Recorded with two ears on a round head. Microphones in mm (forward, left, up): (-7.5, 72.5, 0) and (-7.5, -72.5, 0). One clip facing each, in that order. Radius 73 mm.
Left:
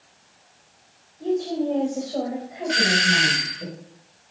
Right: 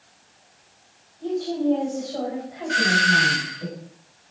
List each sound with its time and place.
1.2 s a woman speaking: 30° left (ahead or behind), 4 m; by 3.7 s 25° left (ahead or behind), 5 m
2.7 s a doorbell: 25° left (ahead or behind), 1.4 m